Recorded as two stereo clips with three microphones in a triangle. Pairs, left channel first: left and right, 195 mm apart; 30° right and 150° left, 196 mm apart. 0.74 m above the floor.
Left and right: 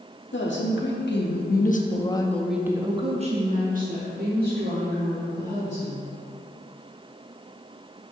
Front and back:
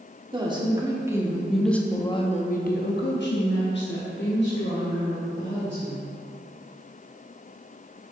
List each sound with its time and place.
0.3 s a woman speaking: 85° left, 1.3 m; by 6.1 s 60° right, 2.5 m